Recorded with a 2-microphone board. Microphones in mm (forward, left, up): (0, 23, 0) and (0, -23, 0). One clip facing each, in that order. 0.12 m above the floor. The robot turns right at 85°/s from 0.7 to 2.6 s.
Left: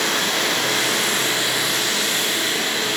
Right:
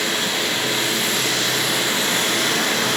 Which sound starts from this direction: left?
Running water, at 0.0 s.